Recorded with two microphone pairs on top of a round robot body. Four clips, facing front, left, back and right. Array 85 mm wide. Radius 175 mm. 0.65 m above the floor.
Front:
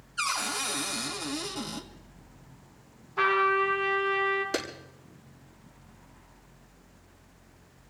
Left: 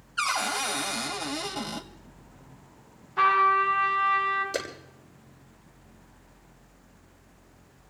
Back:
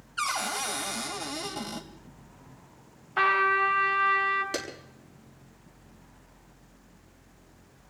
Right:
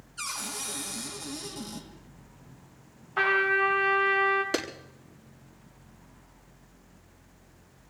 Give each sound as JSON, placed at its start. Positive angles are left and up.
{"t": 0.2, "sound": "a cupboard door", "azimuth_deg": 120, "distance_m": 2.5}
{"t": 3.2, "sound": "a trumpet", "azimuth_deg": -150, "distance_m": 4.0}
{"t": 4.5, "sound": "a clap", "azimuth_deg": -90, "distance_m": 6.5}